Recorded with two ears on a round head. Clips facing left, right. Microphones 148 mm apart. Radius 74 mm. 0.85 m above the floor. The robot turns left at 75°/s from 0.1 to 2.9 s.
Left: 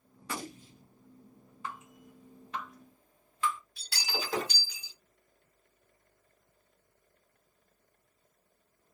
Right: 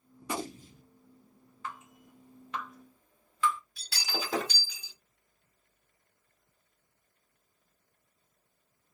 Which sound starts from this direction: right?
Breaking glass, at 3.8 s.